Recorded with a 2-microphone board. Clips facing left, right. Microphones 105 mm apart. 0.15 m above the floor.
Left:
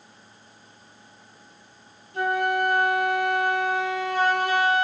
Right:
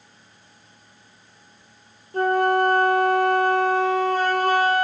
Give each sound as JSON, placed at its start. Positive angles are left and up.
{"t": 2.1, "sound": "a flute", "side_deg": -45, "distance_m": 1.7}